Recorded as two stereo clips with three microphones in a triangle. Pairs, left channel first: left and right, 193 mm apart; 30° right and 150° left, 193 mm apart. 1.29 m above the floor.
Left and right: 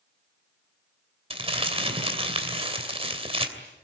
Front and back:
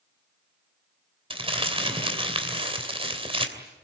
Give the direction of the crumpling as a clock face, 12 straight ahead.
5 o'clock.